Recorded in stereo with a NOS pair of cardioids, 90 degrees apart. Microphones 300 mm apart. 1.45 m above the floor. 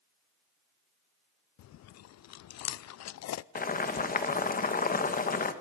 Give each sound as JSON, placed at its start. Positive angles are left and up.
{"t": 1.6, "sound": "chewing", "azimuth_deg": 60, "distance_m": 0.6}
{"t": 3.5, "sound": "boiling", "azimuth_deg": 30, "distance_m": 1.9}